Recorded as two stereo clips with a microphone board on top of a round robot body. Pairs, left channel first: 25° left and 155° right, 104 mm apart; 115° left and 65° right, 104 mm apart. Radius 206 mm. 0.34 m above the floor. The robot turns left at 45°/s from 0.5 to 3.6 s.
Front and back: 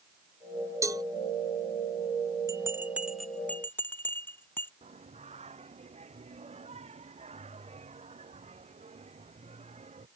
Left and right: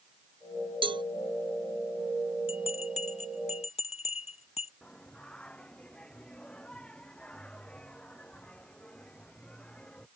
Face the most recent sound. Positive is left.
turn(degrees=-165)